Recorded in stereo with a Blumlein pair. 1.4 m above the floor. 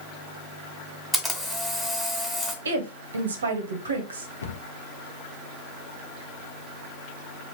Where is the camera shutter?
Straight ahead, 1.6 m.